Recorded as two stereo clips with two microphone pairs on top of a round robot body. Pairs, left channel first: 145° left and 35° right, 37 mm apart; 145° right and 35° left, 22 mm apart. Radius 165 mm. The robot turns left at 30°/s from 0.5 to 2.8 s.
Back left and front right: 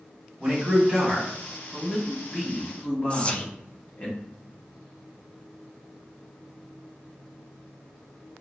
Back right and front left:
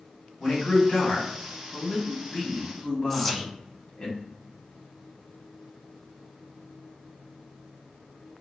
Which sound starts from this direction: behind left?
Whispering, at 3.1 s.